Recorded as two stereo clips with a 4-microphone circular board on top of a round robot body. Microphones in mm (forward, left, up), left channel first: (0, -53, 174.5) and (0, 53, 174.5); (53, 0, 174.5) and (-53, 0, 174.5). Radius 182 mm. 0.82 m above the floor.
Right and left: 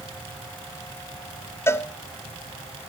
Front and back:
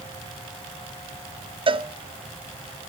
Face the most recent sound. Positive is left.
turn(degrees=-155)